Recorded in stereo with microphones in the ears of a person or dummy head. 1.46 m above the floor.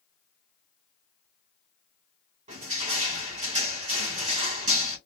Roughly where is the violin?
I don't hear a violin.